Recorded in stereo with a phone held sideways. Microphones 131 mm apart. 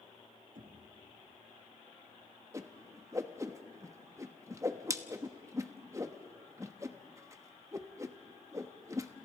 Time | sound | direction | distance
0.6 | knocking | 75° right (ahead or behind) | 2.5 m
2.5 | a whoosh | 25° right (ahead or behind) | 1.0 m